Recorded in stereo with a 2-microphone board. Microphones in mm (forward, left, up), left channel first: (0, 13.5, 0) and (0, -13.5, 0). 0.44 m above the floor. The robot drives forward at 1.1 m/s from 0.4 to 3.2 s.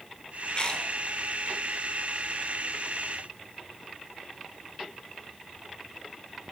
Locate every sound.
0.5 s chewing: 40° left (ahead or behind), 2 m; by 0.9 s 35° left (ahead or behind), 2.5 m